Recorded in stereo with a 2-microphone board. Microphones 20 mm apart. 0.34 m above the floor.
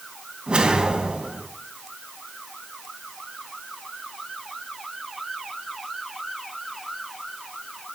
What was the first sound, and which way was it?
A whoosh, 60° right (ahead or behind).